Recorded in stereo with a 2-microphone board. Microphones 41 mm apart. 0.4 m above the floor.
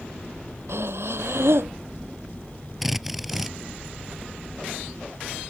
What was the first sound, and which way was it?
Breathing, 85° right.